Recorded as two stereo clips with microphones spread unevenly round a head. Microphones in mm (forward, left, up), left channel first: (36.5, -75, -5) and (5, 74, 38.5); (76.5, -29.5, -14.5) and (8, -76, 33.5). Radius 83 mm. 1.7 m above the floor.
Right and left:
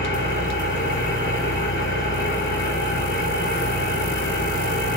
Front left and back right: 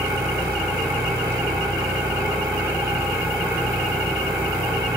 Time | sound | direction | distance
0.0 | an engine running | 115° right | 3.5 m